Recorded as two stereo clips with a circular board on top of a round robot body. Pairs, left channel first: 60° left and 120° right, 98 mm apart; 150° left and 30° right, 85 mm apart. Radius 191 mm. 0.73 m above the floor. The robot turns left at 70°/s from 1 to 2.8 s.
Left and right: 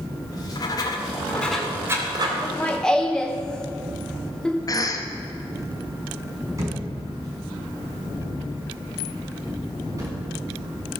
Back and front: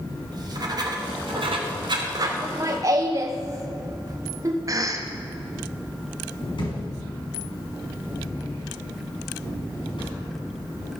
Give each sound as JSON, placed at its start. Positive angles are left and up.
{"t": 0.3, "sound": "writing", "azimuth_deg": 10, "distance_m": 2.5}
{"t": 2.4, "sound": "laughter", "azimuth_deg": 5, "distance_m": 1.2}
{"t": 4.7, "sound": "a cough", "azimuth_deg": 15, "distance_m": 1.5}
{"t": 6.6, "sound": "a thud", "azimuth_deg": 180, "distance_m": 5.0}